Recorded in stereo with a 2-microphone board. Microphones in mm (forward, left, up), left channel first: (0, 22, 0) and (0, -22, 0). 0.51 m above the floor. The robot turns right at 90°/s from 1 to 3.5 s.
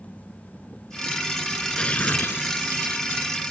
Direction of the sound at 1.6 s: 10° left.